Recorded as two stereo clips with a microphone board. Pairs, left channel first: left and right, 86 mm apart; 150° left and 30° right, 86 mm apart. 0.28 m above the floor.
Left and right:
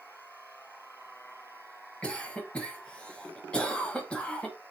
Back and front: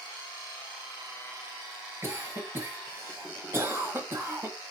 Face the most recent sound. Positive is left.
turn(degrees=20)